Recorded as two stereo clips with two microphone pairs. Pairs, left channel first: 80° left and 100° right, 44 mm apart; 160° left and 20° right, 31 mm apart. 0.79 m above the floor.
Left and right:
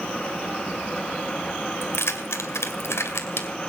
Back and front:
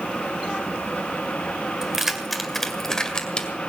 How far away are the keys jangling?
About 1.9 m.